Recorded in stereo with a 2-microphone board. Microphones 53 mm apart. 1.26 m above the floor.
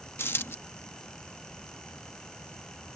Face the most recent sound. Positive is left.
turn(degrees=50)  # may be behind; listen again after turning